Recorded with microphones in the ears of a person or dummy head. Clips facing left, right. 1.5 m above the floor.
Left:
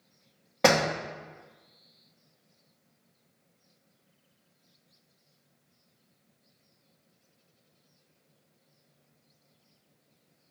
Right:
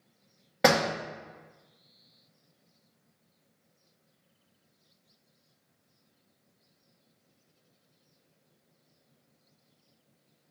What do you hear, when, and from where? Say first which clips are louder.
0.6 s a door slam: left 1 dB; centre (ahead or behind), 1.1 m